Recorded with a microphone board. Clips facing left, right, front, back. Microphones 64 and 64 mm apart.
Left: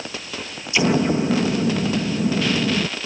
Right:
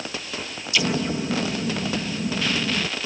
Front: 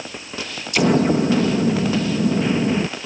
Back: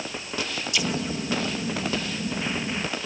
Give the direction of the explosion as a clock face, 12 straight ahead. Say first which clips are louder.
Left 6 dB, front 13 dB; 11 o'clock.